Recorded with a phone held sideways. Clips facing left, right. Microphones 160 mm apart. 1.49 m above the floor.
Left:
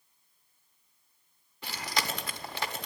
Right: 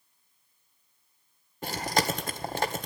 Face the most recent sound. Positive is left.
turn(degrees=-45)  # may be behind; listen again after turning